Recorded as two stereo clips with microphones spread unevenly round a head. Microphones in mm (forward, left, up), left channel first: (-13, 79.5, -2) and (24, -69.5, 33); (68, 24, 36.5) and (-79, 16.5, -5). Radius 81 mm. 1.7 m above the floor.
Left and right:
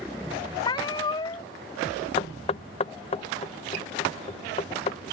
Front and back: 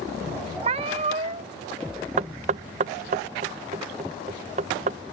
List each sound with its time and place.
0.6 s a cat meowing: 165° left
2.2 s knocking: 150° left